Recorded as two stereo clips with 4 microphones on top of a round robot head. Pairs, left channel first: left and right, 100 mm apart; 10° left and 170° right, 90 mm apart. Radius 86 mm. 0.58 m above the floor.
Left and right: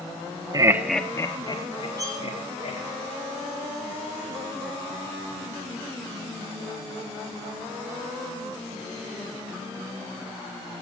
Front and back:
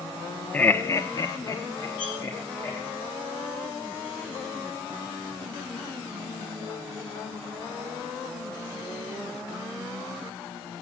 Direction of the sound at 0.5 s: 60° right.